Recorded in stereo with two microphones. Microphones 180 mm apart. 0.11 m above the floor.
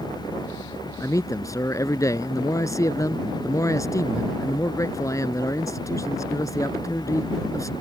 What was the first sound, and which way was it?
A man speaking, 20° left (ahead or behind).